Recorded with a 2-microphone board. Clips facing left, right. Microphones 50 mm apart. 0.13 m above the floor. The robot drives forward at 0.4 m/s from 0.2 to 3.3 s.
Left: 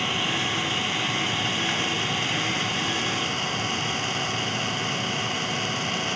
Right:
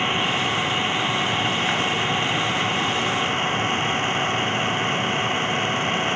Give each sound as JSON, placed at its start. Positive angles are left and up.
{"t": 0.0, "sound": "an engine running", "side_deg": -20}